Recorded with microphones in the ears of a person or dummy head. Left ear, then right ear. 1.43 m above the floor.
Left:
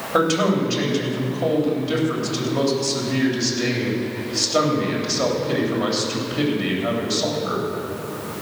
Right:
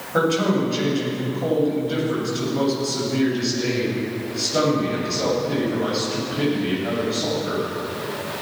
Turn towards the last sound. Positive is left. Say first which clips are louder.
# left 1 dB
turn(degrees=90)